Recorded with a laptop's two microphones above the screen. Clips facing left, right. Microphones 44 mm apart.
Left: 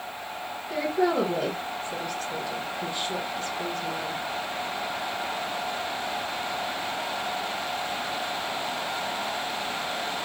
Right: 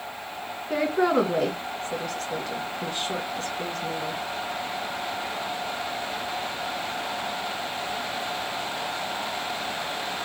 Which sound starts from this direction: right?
A woman speaking, at 0.7 s.